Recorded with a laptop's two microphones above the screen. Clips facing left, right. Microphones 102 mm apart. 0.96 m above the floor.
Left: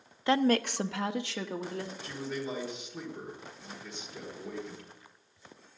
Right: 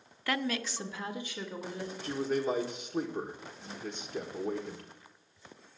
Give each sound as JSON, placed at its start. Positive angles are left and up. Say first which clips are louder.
{"t": 0.3, "sound": "a woman speaking", "louder": "left 8 dB", "side_deg": 20, "distance_m": 0.6}
{"t": 2.0, "sound": "a man speaking", "louder": "right 10 dB", "side_deg": -40, "distance_m": 1.1}